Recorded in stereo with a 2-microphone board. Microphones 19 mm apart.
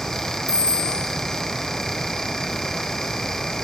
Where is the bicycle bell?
65° right (ahead or behind), 8 m.